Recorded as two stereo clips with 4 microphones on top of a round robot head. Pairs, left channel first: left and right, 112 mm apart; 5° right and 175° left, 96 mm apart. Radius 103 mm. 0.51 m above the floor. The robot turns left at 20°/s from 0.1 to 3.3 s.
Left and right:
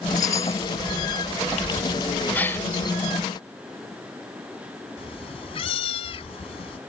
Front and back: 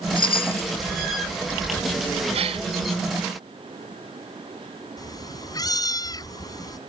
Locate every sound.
0.2 s a chime: 25° left; by 0.7 s 15° left
2.3 s a gasp: 165° left; by 2.7 s 160° left
5.0 s a cat meowing: 45° left